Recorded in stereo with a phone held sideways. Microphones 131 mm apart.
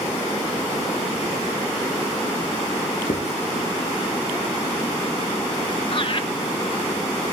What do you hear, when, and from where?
3.1 s writing: 65° left (ahead or behind), 2.5 m
5.9 s laughter: 40° left (ahead or behind), 1.0 m